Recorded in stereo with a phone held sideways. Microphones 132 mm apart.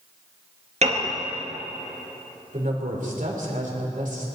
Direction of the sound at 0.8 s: 60° right (ahead or behind).